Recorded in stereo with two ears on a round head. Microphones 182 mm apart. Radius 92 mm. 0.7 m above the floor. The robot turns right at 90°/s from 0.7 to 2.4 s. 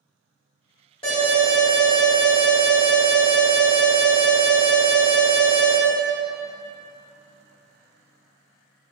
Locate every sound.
1.0 s an alarm: 25° left, 1.6 m; by 5.8 s 150° left, 1.6 m